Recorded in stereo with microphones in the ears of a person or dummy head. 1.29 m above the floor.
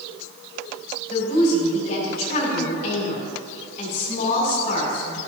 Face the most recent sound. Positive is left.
turn(degrees=50)  # may be behind; listen again after turning